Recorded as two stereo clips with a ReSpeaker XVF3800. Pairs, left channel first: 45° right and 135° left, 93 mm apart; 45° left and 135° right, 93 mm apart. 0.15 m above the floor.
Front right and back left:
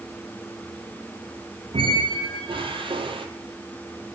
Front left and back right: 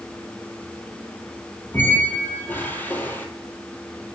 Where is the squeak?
115° left, 0.8 m.